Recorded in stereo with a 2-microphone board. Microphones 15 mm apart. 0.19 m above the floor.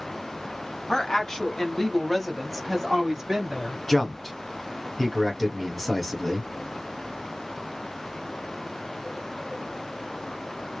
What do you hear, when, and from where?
0.9 s a woman speaking: 45° left (ahead or behind), 1.8 m; by 3.8 s 30° right (ahead or behind), 1.8 m
3.9 s a man speaking: 15° left (ahead or behind), 1.2 m